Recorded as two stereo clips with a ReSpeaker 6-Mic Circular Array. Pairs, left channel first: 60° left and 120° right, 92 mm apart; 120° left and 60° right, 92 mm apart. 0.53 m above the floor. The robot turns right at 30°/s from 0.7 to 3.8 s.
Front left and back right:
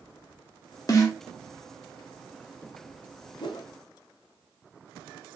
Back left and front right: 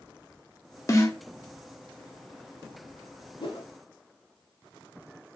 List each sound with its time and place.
0.9 s a snare drum: 85° left, 0.7 m; by 1.2 s 95° left, 0.7 m
3.4 s a whoosh: 90° left, 0.6 m; by 3.7 s 100° left, 0.6 m